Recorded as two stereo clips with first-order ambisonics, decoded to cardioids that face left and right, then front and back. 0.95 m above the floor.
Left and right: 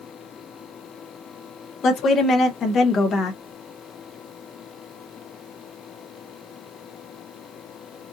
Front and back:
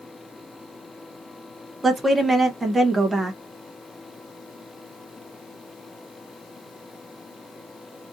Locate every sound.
1.8 s a woman speaking: 105° left, 0.7 m